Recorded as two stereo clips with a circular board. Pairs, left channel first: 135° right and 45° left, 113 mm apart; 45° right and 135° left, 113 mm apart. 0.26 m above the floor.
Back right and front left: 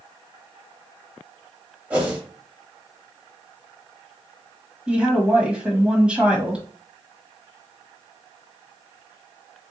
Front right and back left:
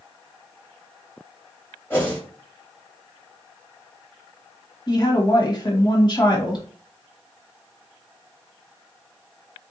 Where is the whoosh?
10° right, 1.5 m.